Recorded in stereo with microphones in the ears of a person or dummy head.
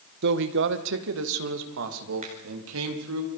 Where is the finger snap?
40° right (ahead or behind), 4.5 m.